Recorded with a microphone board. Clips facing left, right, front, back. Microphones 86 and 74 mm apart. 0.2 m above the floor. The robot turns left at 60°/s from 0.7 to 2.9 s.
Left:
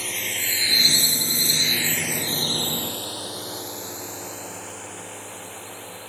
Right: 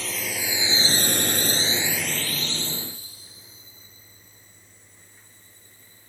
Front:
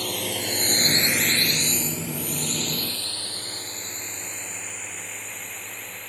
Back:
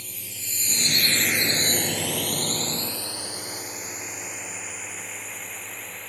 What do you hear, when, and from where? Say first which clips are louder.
0.0 s a drone: right 1 dB, front 15 dB; straight ahead; by 6.1 s 90° left